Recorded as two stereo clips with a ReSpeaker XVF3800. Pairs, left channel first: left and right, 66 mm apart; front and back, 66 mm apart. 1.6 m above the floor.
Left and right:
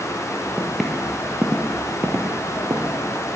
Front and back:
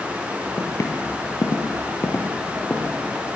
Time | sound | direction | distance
0.6 | footsteps | 15° left | 2.5 m